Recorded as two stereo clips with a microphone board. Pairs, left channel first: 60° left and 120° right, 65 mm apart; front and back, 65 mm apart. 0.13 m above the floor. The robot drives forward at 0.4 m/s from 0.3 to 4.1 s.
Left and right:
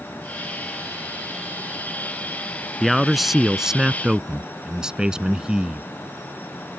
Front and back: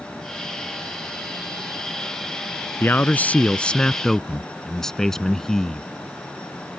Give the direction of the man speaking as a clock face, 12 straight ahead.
1 o'clock.